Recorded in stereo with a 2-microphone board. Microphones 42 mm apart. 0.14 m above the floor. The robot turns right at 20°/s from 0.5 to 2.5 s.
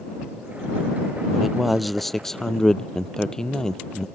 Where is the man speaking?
10° right (ahead or behind); by 4.1 s 15° left (ahead or behind).